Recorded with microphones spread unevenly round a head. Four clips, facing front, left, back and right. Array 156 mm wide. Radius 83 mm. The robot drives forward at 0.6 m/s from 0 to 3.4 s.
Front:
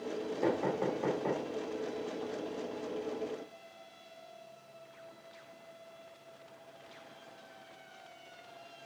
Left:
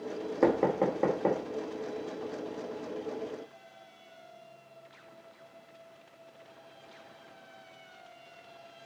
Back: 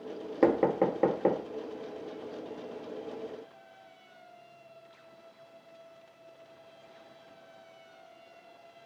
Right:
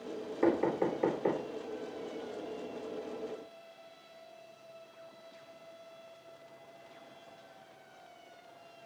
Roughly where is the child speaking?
I don't hear a child speaking.